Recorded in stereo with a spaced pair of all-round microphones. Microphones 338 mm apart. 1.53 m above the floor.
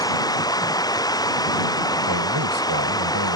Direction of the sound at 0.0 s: 10° left (ahead or behind).